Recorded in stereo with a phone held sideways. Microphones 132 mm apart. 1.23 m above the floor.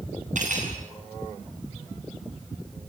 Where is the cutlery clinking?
70° right (ahead or behind), 9 m.